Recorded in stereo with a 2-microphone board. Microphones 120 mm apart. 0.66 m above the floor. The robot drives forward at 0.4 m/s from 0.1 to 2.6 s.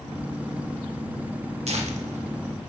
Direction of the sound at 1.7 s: 65° right (ahead or behind).